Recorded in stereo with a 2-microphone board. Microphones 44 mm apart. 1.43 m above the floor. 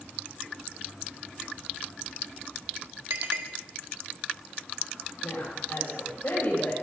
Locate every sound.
3.1 s a clink: 80° right, 2.5 m
5.2 s a woman speaking: 45° left (ahead or behind), 9 m